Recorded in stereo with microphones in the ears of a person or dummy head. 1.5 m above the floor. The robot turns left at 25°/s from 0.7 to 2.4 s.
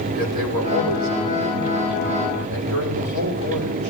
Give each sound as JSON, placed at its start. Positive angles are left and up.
{"t": 0.1, "sound": "a man speaking", "azimuth_deg": -70, "distance_m": 6.0}